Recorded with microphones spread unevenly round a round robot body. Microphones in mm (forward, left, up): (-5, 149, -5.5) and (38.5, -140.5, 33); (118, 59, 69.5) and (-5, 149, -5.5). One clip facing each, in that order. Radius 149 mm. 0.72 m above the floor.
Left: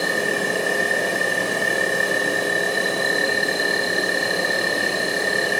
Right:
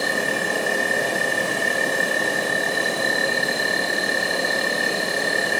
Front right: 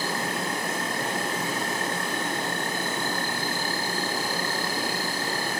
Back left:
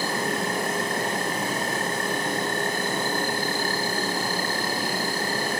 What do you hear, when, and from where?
0.0 s an insect: 170° right, 9 m